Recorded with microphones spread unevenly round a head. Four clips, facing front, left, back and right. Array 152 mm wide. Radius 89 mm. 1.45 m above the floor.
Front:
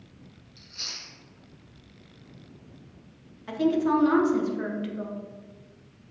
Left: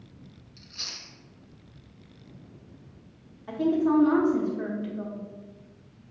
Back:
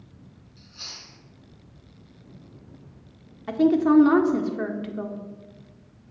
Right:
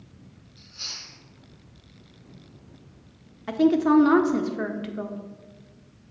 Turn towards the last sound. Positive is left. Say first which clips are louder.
# right 4 dB, back 5 dB
turn(degrees=-95)